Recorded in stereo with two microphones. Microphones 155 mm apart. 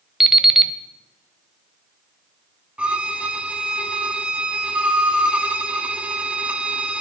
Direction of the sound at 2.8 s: 10° right (ahead or behind).